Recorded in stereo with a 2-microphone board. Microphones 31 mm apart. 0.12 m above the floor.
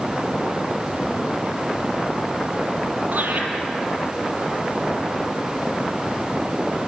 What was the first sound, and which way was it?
Laughter, 65° right (ahead or behind).